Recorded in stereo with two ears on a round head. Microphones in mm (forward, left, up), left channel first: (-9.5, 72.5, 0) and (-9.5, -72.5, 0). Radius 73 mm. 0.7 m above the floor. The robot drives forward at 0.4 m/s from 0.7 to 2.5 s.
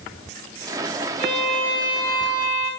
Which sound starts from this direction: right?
A violin, at 1.2 s.